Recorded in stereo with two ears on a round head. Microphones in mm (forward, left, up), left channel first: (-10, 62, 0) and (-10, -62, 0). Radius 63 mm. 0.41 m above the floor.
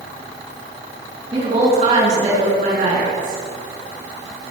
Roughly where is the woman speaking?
Right.